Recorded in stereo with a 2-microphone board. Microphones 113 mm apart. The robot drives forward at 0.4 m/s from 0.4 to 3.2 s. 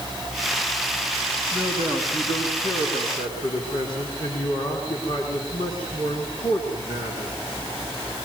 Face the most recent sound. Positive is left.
turn(degrees=65)  # may be behind; listen again after turning